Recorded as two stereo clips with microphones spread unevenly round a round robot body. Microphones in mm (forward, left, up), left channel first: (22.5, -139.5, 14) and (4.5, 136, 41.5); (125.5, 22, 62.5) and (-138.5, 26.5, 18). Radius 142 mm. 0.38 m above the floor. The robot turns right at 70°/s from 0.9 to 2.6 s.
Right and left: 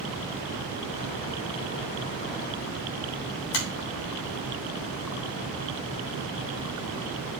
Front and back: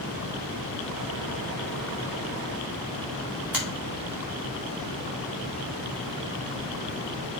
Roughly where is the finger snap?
Right.